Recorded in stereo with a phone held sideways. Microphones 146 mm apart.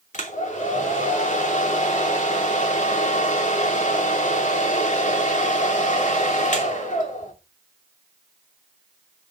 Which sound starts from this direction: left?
A hair dryer, at 0.1 s.